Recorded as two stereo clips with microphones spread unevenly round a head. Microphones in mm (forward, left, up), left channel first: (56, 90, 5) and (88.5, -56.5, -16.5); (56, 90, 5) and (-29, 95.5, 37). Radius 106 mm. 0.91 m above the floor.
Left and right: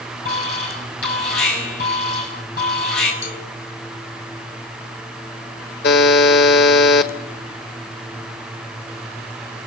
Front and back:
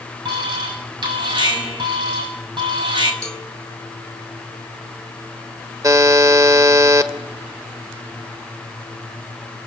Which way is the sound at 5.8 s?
130° left.